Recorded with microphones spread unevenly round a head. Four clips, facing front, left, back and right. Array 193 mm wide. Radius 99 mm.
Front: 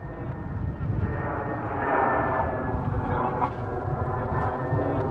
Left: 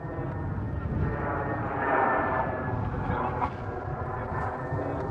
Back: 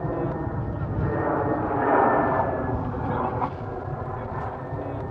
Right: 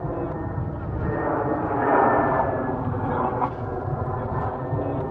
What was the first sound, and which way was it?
An aircraft, 145° right.